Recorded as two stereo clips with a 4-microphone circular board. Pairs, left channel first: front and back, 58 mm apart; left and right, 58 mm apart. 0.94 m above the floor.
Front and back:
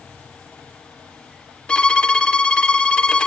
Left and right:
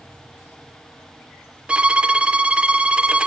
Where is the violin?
50° right, 0.5 m.